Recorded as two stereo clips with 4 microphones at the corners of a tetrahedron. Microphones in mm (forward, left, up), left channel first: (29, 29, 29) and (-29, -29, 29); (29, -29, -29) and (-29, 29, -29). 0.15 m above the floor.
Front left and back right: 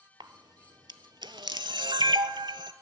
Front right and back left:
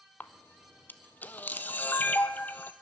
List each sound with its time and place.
0.2 s a camera shutter: 110° right, 0.6 m